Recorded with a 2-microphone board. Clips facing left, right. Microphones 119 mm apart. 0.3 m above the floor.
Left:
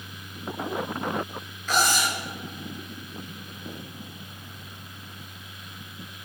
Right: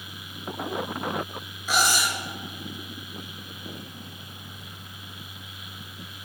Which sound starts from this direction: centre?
Cutlery clinking, at 1.7 s.